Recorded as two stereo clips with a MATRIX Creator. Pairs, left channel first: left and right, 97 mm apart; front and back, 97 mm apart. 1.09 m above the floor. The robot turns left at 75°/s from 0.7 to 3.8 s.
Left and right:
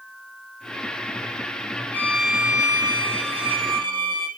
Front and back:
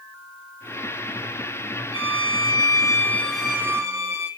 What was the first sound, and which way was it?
A violin, 20° left.